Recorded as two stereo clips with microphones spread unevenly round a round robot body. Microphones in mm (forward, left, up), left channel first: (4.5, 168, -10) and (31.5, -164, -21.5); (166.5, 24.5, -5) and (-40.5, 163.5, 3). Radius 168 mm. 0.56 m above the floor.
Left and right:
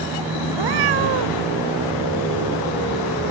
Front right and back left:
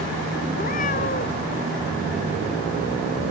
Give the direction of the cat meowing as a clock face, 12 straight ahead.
3 o'clock.